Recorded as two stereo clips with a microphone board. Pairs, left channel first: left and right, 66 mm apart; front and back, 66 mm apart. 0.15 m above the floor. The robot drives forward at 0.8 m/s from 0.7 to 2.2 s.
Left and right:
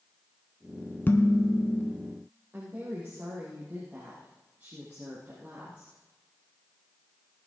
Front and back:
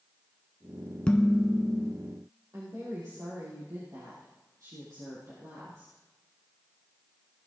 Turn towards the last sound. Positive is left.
turn(degrees=-150)